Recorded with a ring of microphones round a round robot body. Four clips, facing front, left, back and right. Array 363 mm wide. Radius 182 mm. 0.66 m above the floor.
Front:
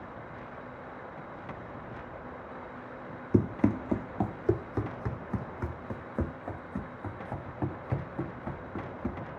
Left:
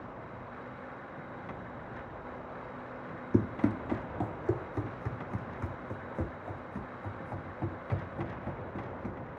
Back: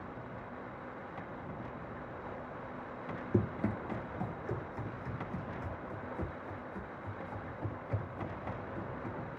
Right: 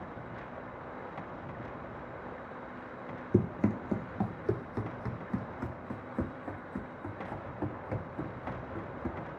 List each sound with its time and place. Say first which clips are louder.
3.3 s running footsteps: left 1 dB, front 8 dB; 5° right, 0.7 m; by 9.2 s 10° right, 3.5 m